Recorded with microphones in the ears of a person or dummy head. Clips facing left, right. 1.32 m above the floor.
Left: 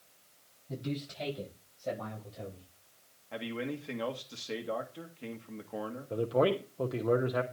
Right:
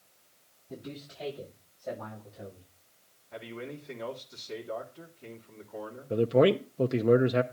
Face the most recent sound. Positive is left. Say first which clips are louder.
# right 6 dB
turn(degrees=-30)  # may be behind; listen again after turning